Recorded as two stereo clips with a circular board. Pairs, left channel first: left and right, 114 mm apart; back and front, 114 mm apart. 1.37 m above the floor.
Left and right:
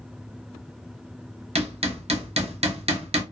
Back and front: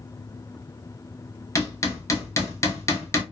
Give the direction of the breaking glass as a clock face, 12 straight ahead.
I don't hear breaking glass.